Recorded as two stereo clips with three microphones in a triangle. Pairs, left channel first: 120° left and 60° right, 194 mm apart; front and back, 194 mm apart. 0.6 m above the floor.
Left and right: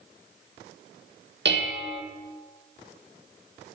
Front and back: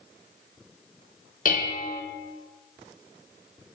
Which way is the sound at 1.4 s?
40° right.